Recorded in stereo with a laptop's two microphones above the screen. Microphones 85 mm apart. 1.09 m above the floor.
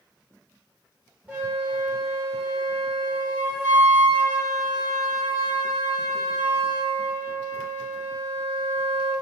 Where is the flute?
15° right (ahead or behind), 1.1 m.